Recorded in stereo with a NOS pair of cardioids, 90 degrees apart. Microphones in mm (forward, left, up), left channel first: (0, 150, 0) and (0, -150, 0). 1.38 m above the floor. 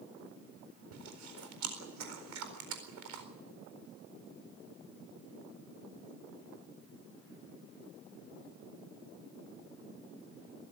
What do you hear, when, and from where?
0.9 s chewing: 65° right, 4.5 m